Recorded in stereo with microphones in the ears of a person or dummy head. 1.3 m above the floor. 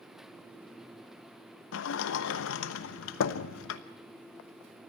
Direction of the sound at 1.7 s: 75° left (ahead or behind).